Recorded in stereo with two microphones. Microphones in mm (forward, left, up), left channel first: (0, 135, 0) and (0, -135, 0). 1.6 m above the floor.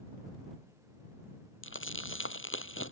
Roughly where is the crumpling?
Left.